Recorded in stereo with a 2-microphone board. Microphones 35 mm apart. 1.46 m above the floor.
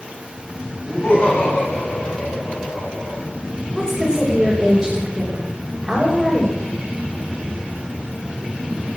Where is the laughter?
35° left (ahead or behind), 9.5 m; by 3.2 s 30° left (ahead or behind), 6.5 m.